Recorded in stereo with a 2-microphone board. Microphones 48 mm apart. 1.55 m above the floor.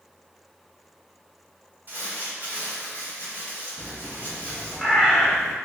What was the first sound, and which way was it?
Crumpling, 40° right (ahead or behind).